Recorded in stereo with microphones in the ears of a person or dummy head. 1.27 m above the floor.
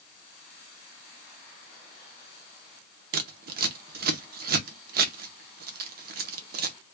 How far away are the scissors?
About 0.6 m.